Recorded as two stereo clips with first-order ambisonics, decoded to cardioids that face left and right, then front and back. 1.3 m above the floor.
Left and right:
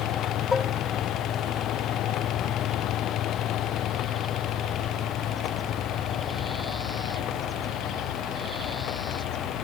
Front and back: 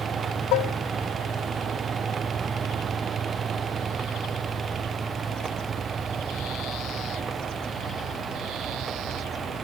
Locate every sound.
0.5 s dishes clattering: 15° left